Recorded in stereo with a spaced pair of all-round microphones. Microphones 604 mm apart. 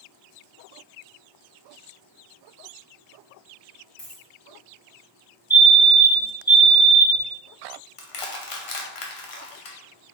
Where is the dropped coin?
35° left (ahead or behind), 1.6 m.